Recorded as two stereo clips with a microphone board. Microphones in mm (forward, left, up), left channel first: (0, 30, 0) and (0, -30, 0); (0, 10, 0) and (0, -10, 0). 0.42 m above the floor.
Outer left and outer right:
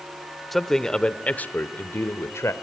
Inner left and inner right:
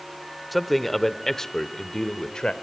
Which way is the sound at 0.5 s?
5° left (ahead or behind).